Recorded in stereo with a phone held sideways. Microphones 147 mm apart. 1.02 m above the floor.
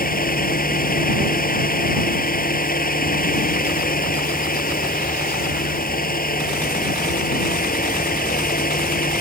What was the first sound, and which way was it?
A fan, 85° left.